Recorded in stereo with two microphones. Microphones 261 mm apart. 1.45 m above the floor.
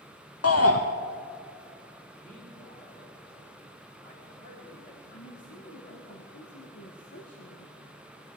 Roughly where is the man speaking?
Left.